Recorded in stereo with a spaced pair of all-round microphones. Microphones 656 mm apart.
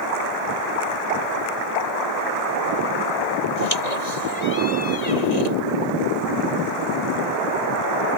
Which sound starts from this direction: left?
A squeak, at 3.6 s.